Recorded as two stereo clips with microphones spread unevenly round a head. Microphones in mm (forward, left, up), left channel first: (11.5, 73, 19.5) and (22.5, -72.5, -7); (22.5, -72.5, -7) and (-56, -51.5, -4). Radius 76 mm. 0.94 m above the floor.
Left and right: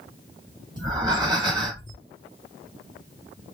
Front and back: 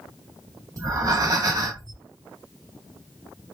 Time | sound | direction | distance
0.8 | breathing | 150° right | 1.1 m